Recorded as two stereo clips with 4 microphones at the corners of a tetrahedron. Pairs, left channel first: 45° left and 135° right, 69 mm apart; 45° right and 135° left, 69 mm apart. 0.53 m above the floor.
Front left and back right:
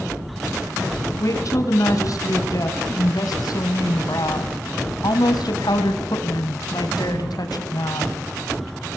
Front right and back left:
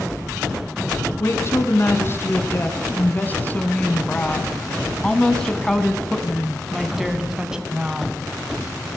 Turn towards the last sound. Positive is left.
turn(degrees=60)